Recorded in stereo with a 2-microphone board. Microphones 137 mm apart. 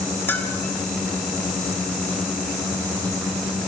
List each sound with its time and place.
0.3 s a bell: 15° left (ahead or behind), 3.5 m